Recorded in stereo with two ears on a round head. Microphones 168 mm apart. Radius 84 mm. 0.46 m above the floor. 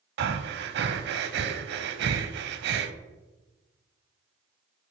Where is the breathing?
60° right (ahead or behind), 0.5 m.